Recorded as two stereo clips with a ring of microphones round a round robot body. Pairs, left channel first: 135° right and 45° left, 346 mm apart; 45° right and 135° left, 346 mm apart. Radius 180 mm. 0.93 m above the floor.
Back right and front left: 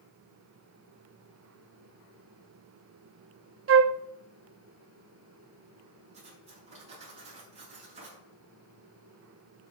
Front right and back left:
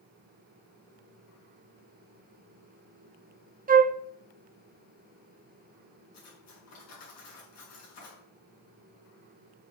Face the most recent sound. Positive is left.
turn(degrees=-25)